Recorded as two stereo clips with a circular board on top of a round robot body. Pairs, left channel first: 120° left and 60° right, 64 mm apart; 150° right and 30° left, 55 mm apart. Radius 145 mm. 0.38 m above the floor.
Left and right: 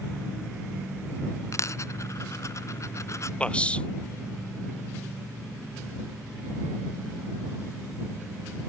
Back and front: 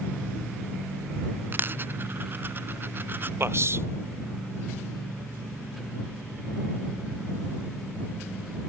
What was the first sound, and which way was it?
A dropped coin, 80° left.